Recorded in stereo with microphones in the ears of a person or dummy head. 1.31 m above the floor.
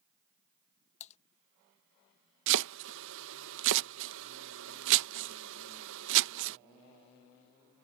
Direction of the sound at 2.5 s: 65° right (ahead or behind).